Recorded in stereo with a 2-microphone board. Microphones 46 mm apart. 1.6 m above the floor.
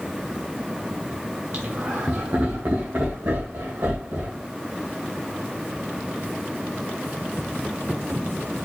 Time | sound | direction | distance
1.5 | laughter | 50° right (ahead or behind) | 0.6 m